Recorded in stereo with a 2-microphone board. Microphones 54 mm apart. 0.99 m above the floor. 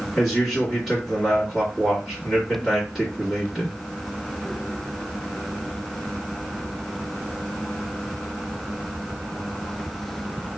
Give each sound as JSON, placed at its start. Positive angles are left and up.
{"t": 0.1, "sound": "a man speaking", "side_deg": -10, "distance_m": 1.8}